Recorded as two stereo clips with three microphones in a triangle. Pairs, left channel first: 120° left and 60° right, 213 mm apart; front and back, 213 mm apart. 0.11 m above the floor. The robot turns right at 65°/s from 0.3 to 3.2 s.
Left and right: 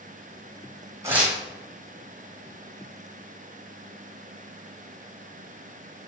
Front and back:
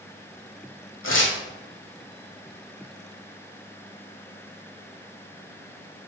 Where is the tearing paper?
15° left, 1.0 m; by 1.4 s 35° left, 1.0 m.